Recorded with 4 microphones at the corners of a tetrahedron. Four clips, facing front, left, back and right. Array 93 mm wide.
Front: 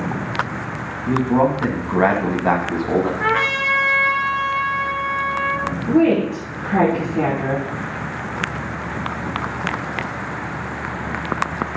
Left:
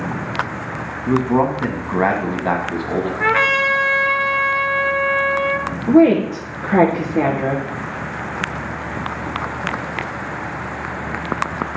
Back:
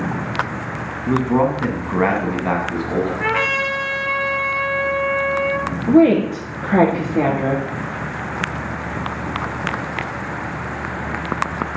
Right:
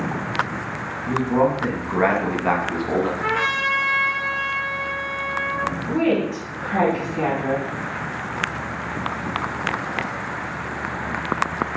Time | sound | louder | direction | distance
1.1 | a man speaking | left 3 dB, even | 105° left | 1.7 m
3.2 | a trumpet | left 6 dB, front 1 dB | 75° left | 1.2 m
5.9 | a woman speaking | left 10 dB, back 3 dB | 125° left | 3 m